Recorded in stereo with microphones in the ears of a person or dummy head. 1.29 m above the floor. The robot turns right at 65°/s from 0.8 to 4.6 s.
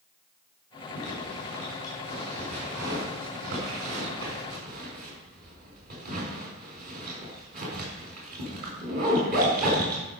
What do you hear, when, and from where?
0.9 s a zipper: 70° left (ahead or behind), 4.5 m; by 10.1 s 50° right (ahead or behind), 4.5 m